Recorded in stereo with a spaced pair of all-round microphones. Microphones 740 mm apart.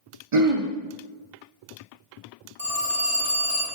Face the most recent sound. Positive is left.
turn(degrees=-50)  # may be behind; listen again after turning